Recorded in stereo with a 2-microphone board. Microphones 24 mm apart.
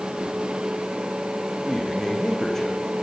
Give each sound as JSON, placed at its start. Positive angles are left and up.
{"t": 1.6, "sound": "a man speaking", "side_deg": 15, "distance_m": 7.5}